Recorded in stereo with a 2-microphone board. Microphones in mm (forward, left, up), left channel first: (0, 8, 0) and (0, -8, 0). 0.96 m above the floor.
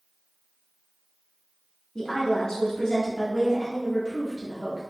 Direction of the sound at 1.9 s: 45° left (ahead or behind).